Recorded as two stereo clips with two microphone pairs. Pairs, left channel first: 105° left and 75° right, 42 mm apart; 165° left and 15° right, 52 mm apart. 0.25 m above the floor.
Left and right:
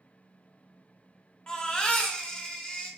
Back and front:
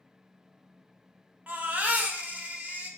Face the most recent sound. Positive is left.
turn(degrees=40)